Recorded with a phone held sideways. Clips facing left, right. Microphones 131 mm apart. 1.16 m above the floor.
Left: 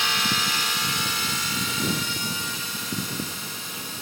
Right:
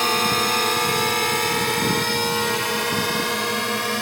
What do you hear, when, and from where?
0.0 s a drone: 50° right (ahead or behind); by 4.0 s 85° right